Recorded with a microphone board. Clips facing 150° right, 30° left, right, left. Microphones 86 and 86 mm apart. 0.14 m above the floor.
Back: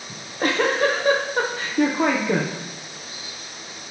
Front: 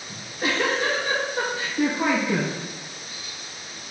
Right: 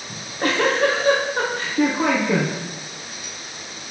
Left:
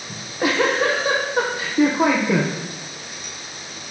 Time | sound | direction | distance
0.1 | a giggle | 170° left | 2 m